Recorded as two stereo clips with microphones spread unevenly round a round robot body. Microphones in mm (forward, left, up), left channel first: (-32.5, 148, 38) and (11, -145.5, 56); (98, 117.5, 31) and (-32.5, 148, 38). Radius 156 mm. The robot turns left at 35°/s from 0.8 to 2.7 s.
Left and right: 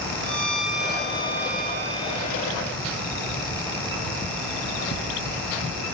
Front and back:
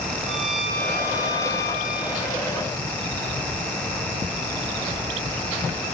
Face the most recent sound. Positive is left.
turn(degrees=150)